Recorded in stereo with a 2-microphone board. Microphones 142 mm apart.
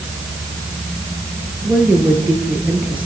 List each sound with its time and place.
1.6 s a woman speaking: 10° right (ahead or behind), 6.5 m